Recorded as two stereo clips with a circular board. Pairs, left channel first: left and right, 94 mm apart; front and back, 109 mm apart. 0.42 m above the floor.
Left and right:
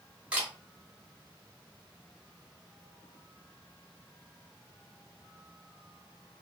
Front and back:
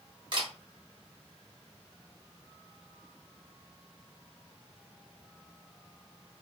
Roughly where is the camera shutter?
Behind.